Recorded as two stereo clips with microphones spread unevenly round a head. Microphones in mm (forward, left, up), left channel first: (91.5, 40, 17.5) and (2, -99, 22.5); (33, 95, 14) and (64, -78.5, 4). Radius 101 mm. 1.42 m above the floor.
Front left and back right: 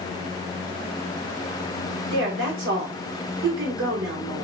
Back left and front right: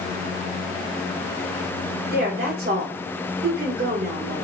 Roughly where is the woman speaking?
Behind right.